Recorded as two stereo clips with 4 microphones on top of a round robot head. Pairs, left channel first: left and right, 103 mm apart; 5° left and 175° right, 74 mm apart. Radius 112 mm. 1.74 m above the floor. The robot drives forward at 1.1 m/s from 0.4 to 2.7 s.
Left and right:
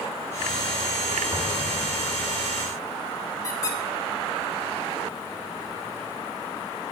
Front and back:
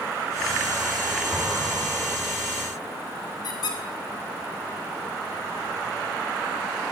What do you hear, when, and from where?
1.3 s an explosion: 105° right, 1.5 m; by 2.4 s 160° right, 2.0 m
3.4 s a squeak: 35° left, 3.5 m